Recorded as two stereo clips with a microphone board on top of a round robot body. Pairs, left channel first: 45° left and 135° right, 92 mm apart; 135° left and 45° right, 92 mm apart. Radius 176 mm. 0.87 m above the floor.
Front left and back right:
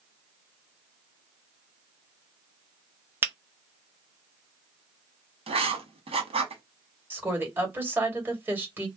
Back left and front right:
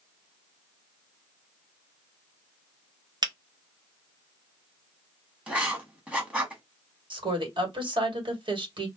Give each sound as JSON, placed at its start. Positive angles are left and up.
{"t": 3.2, "sound": "a finger snap", "azimuth_deg": -75, "distance_m": 1.0}
{"t": 5.5, "sound": "writing", "azimuth_deg": -125, "distance_m": 1.1}
{"t": 7.1, "sound": "a woman speaking", "azimuth_deg": -65, "distance_m": 1.6}